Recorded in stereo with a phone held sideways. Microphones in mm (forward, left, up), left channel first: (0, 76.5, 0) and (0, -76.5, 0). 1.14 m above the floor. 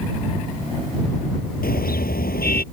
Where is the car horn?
80° left; by 2.6 s 85° left.